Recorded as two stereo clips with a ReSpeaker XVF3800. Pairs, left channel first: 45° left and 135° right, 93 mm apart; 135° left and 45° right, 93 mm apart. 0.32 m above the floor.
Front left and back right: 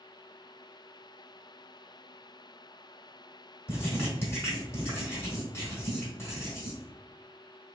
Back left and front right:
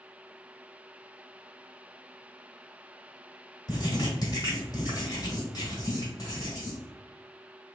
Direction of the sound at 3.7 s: 100° left.